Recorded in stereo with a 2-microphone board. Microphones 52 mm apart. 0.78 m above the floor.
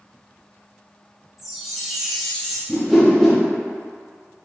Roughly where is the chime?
Centre.